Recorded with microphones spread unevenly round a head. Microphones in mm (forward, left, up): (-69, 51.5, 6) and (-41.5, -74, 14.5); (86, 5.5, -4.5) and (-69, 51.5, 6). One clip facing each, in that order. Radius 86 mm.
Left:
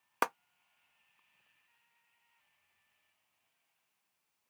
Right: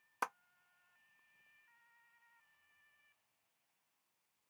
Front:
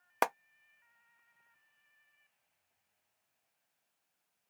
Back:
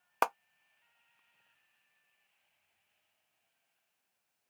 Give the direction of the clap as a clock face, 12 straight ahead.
10 o'clock.